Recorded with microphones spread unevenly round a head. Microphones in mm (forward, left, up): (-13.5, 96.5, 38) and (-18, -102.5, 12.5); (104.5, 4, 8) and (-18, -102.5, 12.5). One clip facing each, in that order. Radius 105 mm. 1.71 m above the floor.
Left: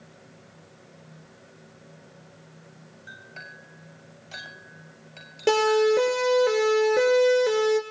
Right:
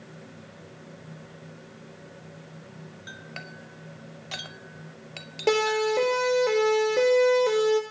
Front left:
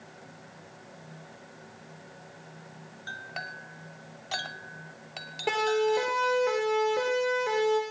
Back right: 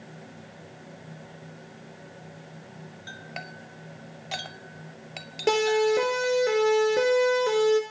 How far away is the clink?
About 2.5 m.